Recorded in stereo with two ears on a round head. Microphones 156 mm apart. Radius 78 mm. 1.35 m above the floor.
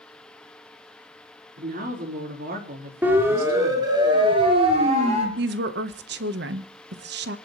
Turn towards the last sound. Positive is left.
turn(degrees=-70)  # may be behind; listen again after turning